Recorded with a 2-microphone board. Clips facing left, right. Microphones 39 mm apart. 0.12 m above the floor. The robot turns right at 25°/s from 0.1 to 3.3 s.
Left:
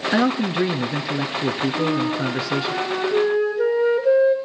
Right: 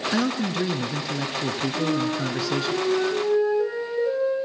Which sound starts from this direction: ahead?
A flute, at 1.7 s.